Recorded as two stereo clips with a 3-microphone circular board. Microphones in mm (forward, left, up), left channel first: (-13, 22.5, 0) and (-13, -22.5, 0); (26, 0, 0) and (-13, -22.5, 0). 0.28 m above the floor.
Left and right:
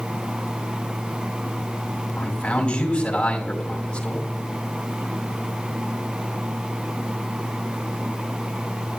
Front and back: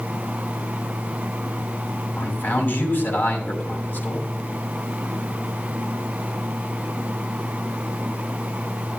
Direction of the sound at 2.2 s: 35° left.